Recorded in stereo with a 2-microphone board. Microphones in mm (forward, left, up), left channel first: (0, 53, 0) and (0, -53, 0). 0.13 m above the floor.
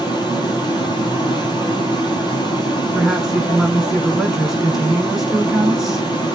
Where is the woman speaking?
5° right (ahead or behind), 1.2 m.